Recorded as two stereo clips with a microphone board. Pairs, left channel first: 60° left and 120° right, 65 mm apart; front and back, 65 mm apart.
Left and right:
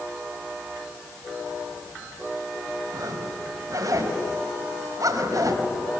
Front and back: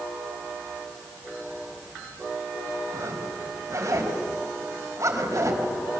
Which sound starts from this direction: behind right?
A zipper, at 2.9 s.